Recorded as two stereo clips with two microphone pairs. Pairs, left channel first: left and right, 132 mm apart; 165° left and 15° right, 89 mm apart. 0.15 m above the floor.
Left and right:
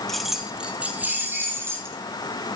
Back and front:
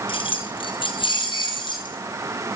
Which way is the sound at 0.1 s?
Straight behind.